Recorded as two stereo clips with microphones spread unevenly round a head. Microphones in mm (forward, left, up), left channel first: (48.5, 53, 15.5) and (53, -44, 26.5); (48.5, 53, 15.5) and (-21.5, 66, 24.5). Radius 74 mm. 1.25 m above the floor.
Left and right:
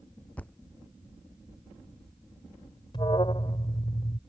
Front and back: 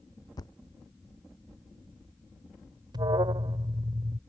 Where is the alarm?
155° left.